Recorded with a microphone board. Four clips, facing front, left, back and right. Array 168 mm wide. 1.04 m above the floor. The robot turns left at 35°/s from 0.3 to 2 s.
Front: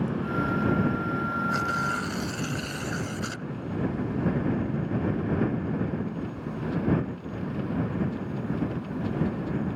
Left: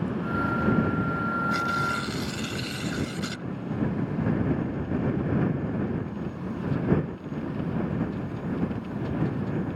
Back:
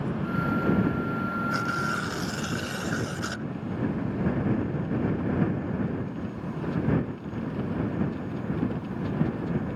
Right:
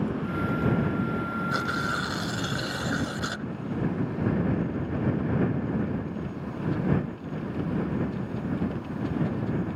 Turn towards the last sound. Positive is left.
turn(degrees=-115)